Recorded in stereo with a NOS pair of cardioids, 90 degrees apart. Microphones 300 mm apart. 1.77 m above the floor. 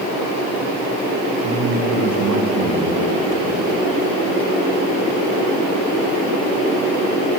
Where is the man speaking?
70° right, 3 m.